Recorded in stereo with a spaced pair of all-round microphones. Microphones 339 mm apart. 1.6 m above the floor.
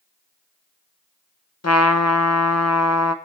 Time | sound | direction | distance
1.6 | a trumpet | 45° left (ahead or behind) | 0.9 m